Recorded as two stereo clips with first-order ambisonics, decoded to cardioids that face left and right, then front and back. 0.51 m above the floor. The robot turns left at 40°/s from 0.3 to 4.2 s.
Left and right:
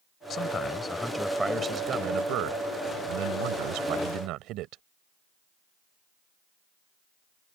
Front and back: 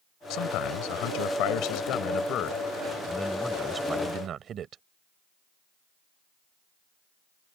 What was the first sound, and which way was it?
A man speaking, 35° left.